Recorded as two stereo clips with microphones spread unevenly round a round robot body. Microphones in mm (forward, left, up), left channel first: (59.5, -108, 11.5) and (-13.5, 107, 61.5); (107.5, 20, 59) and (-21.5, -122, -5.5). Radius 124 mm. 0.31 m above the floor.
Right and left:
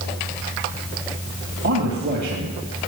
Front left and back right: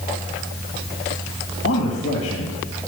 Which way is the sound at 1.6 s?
65° left.